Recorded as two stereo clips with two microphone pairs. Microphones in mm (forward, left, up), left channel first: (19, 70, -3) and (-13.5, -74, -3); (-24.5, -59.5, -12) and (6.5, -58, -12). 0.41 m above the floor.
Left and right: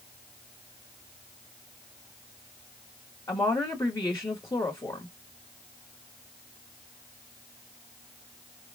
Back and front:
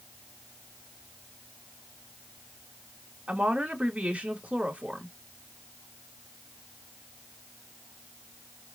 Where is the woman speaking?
25° left, 1.3 m.